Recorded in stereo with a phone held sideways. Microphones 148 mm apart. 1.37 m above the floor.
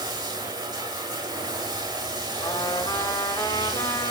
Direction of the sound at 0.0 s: 30° right (ahead or behind).